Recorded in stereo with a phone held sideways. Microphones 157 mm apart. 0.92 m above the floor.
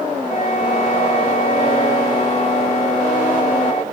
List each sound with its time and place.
0.3 s a flute: 55° left (ahead or behind), 1.4 m